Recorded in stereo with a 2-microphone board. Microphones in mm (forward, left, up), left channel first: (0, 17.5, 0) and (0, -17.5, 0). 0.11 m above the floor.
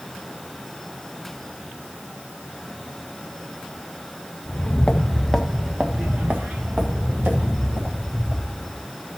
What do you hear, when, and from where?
4.5 s footsteps: 35° left (ahead or behind), 1.5 m; by 8.8 s 80° right, 4.5 m